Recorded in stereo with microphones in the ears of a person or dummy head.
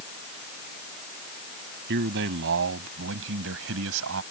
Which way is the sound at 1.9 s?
65° right (ahead or behind).